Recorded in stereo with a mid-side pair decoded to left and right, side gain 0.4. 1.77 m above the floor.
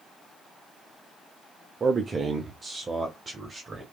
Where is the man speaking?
40° right, 1.1 m.